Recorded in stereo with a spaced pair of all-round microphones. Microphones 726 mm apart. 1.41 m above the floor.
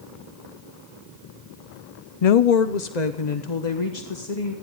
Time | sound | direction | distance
2.2 | a woman speaking | 55° left (ahead or behind) | 0.6 m